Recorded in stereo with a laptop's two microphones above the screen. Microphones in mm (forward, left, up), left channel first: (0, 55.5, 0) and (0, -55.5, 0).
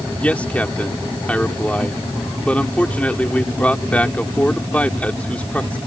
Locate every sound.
0.2 s a man speaking: 15° left (ahead or behind)